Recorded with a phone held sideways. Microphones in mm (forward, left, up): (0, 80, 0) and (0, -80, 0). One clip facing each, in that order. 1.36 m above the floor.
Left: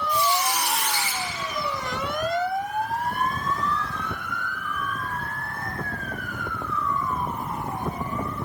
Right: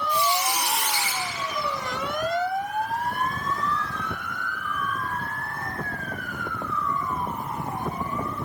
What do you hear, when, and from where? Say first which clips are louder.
0.1 s a squeak: left 1 dB; 20° right (ahead or behind), 3 m